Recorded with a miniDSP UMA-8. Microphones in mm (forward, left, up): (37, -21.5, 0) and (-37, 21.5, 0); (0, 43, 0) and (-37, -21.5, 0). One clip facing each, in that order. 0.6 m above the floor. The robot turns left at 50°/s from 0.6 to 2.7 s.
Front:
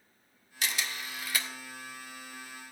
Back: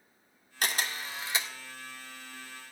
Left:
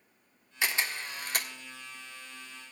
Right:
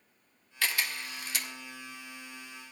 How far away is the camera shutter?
About 1.6 m.